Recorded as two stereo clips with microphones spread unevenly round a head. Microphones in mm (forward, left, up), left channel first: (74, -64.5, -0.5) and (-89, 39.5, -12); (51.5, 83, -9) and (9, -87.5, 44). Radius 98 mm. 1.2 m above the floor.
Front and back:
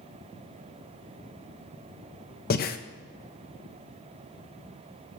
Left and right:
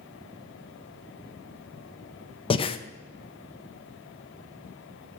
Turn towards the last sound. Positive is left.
turn(degrees=15)